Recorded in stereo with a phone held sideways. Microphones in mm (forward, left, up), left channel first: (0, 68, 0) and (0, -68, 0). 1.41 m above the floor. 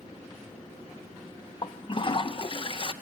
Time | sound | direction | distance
1.6 | a toilet flushing | 40° left (ahead or behind) | 0.7 m